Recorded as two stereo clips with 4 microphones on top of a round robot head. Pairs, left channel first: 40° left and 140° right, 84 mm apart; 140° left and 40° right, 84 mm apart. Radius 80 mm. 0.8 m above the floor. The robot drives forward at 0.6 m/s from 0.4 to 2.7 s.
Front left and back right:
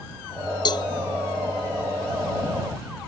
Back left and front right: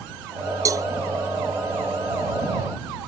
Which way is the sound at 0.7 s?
10° left.